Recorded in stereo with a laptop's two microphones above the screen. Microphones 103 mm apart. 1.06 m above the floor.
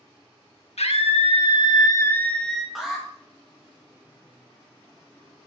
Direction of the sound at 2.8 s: 5° right (ahead or behind).